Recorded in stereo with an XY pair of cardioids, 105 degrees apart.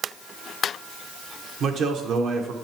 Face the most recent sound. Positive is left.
turn(degrees=-65)